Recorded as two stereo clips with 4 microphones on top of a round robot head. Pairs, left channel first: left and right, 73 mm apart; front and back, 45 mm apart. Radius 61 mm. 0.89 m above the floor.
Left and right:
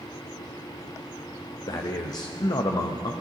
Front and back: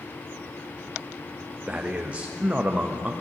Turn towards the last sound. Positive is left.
turn(degrees=120)